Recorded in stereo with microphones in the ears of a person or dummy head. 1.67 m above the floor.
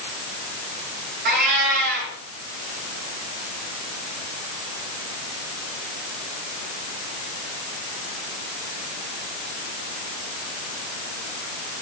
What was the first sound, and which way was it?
A cat meowing, 60° right (ahead or behind).